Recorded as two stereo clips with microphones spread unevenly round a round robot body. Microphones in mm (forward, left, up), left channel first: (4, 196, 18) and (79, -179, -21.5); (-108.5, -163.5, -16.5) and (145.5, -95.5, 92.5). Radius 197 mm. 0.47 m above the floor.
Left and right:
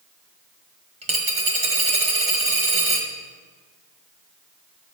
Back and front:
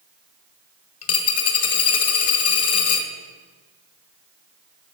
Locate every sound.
1.0 s a dropped coin: 150° right, 1.2 m